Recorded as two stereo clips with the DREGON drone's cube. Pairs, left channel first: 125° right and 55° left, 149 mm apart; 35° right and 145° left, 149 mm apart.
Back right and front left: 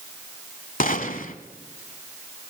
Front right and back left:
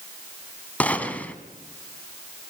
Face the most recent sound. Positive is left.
turn(degrees=-115)